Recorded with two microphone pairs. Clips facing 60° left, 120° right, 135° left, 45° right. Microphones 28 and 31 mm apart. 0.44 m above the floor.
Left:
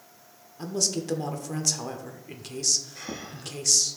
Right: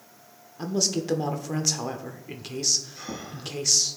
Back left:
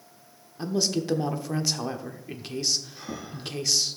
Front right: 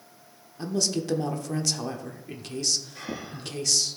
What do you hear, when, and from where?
0.6 s a woman speaking: 170° right, 1.0 m
3.0 s breathing: 5° right, 1.7 m